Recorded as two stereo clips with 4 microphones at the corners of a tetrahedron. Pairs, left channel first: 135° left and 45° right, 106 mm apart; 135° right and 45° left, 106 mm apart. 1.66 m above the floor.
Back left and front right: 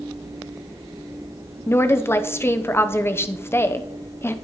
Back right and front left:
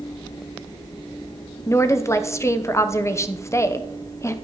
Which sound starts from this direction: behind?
A woman speaking, at 1.7 s.